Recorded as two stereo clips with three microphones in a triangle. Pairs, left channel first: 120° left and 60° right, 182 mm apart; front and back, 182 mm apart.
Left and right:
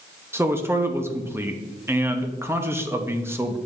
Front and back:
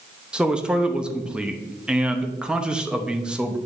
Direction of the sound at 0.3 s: 105° right.